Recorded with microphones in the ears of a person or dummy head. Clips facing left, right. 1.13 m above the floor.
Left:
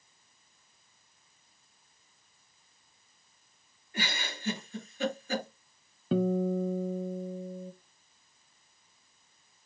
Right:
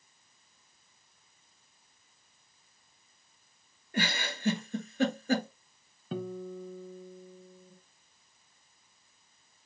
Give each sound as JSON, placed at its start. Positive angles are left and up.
{"t": 3.9, "sound": "a giggle", "side_deg": -40, "distance_m": 1.6}
{"t": 6.1, "sound": "a guitar", "side_deg": 50, "distance_m": 0.5}